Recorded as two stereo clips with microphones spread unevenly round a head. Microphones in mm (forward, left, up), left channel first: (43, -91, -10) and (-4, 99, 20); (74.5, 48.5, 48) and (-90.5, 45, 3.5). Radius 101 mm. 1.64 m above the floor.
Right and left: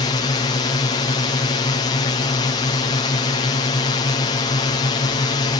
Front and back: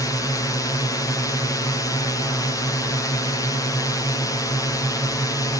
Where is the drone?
80° right.